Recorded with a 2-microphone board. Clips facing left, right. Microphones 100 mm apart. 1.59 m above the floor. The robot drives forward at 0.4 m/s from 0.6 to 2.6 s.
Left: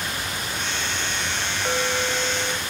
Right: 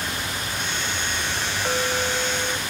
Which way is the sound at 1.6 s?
Centre (ahead or behind).